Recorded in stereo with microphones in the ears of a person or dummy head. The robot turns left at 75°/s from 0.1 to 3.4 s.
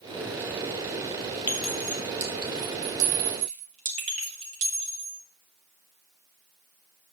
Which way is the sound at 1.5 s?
10° left (ahead or behind).